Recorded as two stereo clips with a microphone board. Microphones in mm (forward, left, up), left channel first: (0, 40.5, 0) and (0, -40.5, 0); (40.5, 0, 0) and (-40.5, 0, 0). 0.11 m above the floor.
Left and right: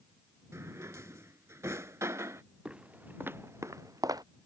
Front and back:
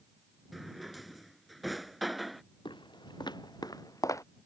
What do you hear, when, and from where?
0.5 s a drawer: 90° right
2.6 s footsteps: 15° right; by 4.2 s 50° right